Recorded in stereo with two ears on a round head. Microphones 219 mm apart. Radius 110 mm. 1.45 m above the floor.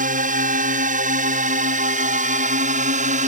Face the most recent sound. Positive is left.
turn(degrees=-30)  # may be behind; listen again after turning